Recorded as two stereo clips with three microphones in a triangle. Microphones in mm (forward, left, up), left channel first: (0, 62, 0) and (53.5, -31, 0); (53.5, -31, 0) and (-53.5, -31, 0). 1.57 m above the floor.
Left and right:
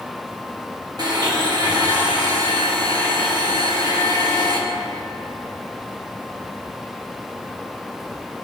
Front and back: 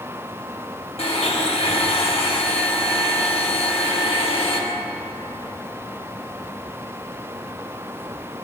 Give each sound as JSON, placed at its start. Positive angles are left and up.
{"t": 1.0, "sound": "a blender", "azimuth_deg": -10, "distance_m": 1.1}